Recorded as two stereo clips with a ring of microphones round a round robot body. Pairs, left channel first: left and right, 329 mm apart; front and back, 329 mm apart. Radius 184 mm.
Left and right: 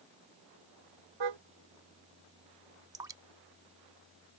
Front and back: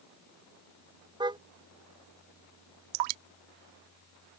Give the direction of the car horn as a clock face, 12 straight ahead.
3 o'clock.